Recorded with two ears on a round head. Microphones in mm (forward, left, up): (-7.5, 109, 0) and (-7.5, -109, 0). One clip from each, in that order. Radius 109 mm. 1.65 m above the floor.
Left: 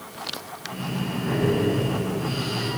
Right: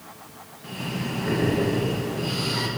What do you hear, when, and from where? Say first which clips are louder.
0.6 s breathing: right 1 dB; 45° right (ahead or behind), 1.5 m